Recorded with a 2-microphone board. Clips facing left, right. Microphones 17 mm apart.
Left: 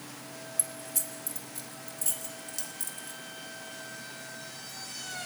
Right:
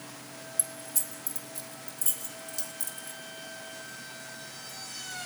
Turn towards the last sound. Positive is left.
turn(degrees=25)  # may be behind; listen again after turning